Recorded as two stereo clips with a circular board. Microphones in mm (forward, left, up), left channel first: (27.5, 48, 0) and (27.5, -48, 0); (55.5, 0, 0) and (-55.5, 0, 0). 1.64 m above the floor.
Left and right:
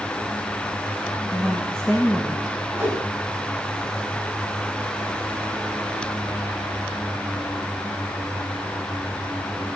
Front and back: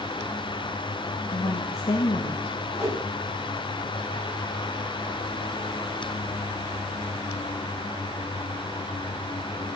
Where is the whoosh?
20° right, 4.5 m.